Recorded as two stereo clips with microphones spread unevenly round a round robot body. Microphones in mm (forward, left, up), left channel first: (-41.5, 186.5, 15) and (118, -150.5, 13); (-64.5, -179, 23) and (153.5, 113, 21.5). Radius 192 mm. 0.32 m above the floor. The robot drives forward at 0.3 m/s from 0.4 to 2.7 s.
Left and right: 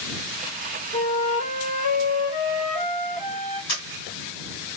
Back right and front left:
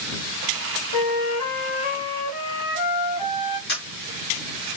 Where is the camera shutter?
170° left, 2 m.